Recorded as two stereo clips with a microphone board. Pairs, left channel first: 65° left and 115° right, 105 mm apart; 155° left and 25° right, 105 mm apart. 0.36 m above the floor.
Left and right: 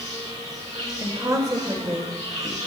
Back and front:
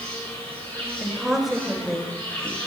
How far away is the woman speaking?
About 1.6 m.